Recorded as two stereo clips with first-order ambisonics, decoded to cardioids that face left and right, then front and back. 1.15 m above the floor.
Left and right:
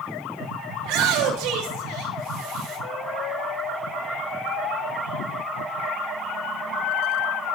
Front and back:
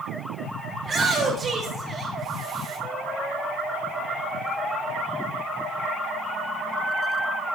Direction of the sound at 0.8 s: 110° right.